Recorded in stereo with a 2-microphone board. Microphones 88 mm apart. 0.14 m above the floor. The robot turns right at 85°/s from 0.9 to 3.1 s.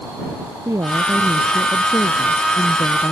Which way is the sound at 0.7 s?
40° right.